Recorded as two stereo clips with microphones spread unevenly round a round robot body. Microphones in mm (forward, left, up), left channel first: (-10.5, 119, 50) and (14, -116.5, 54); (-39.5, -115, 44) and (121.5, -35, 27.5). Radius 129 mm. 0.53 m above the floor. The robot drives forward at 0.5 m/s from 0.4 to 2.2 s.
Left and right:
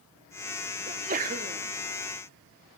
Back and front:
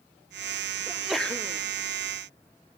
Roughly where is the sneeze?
Ahead right.